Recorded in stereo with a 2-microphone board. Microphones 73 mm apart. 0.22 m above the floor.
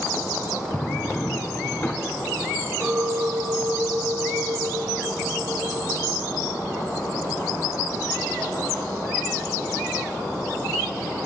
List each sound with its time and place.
0.7 s a drawer: 25° left (ahead or behind), 1.2 m
2.8 s a clink: 35° right (ahead or behind), 2.5 m